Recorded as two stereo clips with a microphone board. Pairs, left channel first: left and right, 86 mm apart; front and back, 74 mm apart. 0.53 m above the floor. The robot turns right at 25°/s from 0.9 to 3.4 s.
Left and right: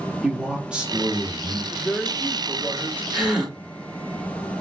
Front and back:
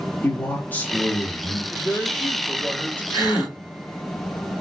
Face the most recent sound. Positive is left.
turn(degrees=-15)